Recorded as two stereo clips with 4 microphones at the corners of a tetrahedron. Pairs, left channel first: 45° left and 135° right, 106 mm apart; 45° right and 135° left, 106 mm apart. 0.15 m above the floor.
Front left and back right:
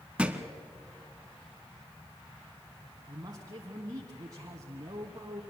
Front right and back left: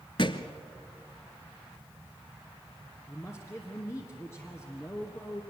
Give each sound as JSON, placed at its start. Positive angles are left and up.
{"t": 0.2, "sound": "a thud", "azimuth_deg": -60, "distance_m": 1.0}
{"t": 3.1, "sound": "a man speaking", "azimuth_deg": -100, "distance_m": 1.5}